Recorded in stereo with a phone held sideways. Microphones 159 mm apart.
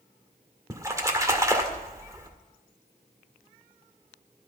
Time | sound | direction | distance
0.7 | a splash | 20° right (ahead or behind) | 1.8 m